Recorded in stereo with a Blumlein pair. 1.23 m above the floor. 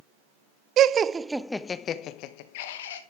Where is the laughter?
30° right, 0.7 m; by 3.0 s 60° left, 1.2 m.